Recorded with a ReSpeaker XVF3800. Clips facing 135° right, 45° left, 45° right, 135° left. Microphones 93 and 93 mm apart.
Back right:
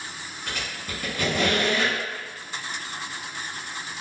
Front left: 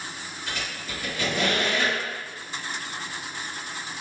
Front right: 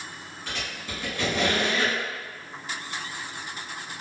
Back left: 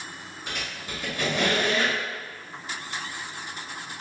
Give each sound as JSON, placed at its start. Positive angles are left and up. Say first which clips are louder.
{"t": 0.5, "sound": "a squeak", "louder": "back right 1 dB, even", "azimuth_deg": -155, "distance_m": 1.5}